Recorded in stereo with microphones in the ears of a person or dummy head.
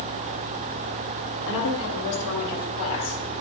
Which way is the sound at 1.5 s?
70° left (ahead or behind).